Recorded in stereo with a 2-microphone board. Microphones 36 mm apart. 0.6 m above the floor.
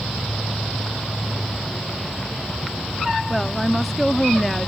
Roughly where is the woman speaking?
Centre.